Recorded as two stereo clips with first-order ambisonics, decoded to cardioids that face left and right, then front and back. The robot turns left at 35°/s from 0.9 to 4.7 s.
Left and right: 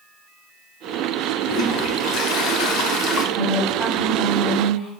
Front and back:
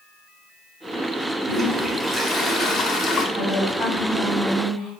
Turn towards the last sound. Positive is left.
turn(degrees=110)